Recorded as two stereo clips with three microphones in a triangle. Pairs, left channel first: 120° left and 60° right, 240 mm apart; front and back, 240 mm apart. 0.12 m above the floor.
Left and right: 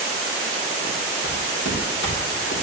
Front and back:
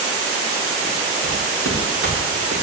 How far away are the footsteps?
About 5.5 m.